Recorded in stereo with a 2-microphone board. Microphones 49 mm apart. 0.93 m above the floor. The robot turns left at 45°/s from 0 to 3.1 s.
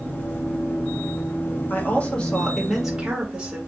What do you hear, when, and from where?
1.7 s a woman speaking: 40° left, 1.6 m; by 3.6 s 20° right, 1.6 m